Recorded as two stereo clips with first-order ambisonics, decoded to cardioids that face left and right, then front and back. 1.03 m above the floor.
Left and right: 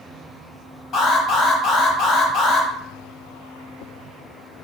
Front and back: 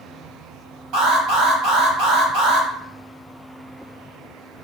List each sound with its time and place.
0.9 s an alarm: 160° left, 4.5 m